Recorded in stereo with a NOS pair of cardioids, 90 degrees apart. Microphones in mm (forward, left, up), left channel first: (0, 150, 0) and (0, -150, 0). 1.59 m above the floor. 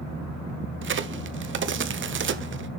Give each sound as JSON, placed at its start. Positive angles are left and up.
{"t": 0.8, "sound": "a crack", "azimuth_deg": -40, "distance_m": 0.9}